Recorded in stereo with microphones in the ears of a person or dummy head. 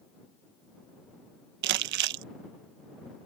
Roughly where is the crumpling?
Right.